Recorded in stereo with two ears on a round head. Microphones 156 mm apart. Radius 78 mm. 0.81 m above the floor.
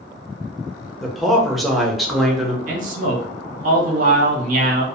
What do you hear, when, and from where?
1.0 s a man speaking: centre (ahead or behind), 0.6 m
2.7 s a man speaking: 50° right (ahead or behind), 0.9 m